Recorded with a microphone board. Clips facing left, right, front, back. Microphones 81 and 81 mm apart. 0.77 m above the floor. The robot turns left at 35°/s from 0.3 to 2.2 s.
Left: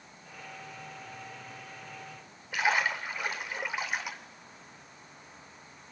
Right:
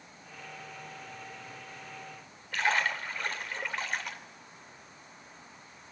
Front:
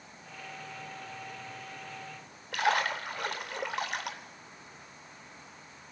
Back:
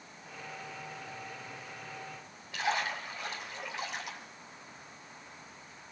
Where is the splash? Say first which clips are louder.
Left 1 dB, front 4 dB; 10° left, 3 m.